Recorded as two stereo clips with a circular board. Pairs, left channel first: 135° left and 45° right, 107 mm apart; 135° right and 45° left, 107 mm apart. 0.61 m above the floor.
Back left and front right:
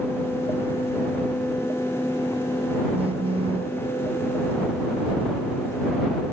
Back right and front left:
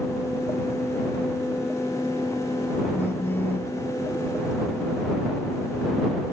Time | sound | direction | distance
2.9 | a phone buzzing | 65° right | ?